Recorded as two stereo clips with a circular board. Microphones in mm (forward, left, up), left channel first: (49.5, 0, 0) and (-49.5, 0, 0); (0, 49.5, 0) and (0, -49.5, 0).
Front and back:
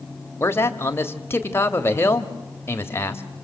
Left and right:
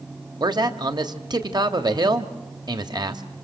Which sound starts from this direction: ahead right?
A man speaking, at 0.4 s.